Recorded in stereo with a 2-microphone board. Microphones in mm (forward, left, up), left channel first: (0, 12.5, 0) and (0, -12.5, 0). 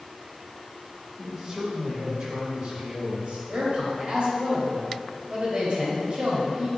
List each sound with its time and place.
1.2 s a man speaking: 25° right (ahead or behind), 1.9 m; by 3.4 s 50° right (ahead or behind), 2.5 m
3.5 s a man speaking: 45° right (ahead or behind), 2 m